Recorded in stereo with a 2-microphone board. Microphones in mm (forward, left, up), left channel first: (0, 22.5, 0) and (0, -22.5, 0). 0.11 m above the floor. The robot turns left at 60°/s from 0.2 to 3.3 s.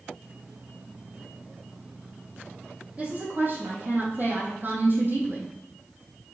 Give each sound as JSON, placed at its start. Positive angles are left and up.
{"t": 3.0, "sound": "a woman speaking", "side_deg": -30, "distance_m": 3.5}